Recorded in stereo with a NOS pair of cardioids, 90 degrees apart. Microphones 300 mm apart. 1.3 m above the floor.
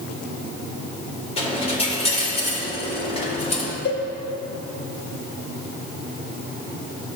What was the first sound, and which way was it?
A dropped coin, 20° left.